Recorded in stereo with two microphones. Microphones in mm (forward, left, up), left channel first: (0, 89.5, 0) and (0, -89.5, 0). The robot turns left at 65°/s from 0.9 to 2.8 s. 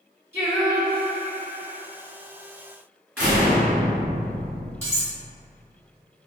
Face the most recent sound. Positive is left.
turn(degrees=-15)  # may be behind; listen again after turning